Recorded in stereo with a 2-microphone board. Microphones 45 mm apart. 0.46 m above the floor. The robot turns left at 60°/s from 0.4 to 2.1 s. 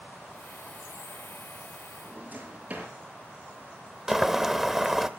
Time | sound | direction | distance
2.0 | a drawer | 35° right (ahead or behind) | 5.5 m
4.1 | boiling | 10° right (ahead or behind) | 0.7 m